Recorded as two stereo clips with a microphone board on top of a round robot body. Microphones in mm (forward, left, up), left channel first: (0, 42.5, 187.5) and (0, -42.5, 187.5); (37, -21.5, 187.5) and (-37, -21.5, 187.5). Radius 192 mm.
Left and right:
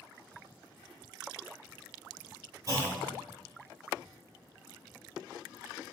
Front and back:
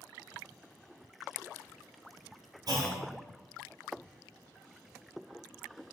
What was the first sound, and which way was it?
A clunk, 145° right.